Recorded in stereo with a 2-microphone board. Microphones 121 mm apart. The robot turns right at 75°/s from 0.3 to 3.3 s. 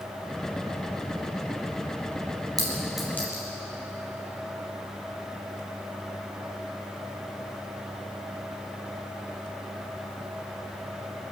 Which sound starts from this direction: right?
A clink, at 2.6 s.